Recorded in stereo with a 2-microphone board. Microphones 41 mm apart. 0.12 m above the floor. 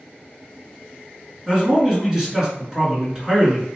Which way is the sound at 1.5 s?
10° right (ahead or behind).